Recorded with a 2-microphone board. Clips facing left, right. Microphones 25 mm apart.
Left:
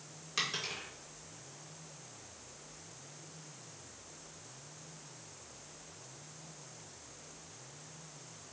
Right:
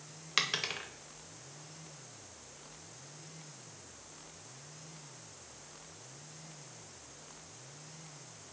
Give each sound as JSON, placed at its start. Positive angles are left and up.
{"t": 0.4, "sound": "a dropped coin", "side_deg": -45, "distance_m": 0.7}